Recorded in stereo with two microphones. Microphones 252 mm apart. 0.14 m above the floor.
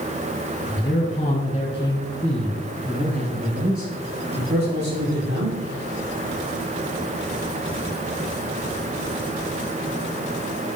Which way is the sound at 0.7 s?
45° left (ahead or behind).